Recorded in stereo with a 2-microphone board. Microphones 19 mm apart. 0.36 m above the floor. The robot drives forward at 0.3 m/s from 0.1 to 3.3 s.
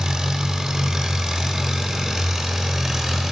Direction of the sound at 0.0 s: 30° right (ahead or behind).